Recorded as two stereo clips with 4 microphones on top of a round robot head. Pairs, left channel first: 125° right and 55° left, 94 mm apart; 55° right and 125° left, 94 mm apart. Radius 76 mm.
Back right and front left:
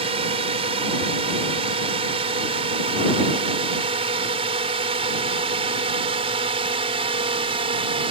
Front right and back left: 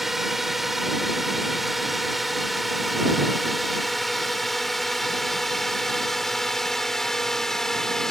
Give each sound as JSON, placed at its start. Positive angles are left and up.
{"t": 0.0, "sound": "a drone", "azimuth_deg": 40}